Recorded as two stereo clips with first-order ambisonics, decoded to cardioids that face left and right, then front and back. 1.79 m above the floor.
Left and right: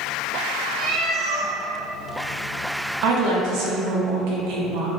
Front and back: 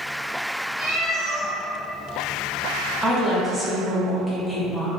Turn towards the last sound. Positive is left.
turn(degrees=-95)